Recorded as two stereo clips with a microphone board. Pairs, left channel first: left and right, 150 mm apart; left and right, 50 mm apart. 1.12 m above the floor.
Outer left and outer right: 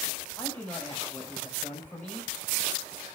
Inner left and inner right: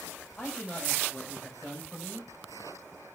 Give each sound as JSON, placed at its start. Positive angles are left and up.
{"t": 0.4, "sound": "a man speaking", "side_deg": 10, "distance_m": 4.5}